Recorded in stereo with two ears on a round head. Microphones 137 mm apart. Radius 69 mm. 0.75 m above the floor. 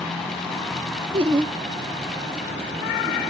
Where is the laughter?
35° right (ahead or behind), 0.9 m.